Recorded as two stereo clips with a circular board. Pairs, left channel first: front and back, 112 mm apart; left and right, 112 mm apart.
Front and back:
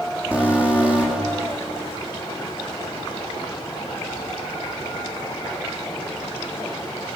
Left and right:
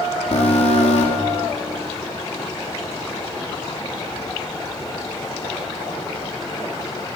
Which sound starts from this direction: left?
An alarm, at 0.3 s.